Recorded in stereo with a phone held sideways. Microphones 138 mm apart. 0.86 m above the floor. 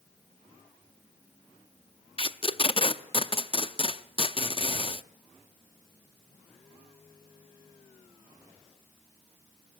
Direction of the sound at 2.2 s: 40° left (ahead or behind).